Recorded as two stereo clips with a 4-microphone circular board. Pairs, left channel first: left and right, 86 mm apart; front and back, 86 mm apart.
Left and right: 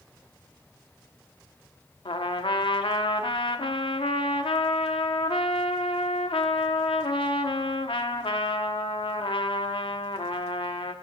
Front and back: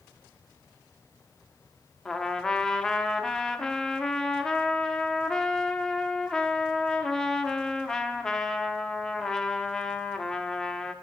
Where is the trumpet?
85° left, 0.9 m.